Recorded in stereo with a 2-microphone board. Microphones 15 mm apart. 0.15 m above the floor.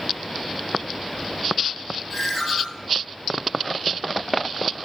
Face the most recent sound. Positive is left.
turn(degrees=10)  # may be behind; listen again after turning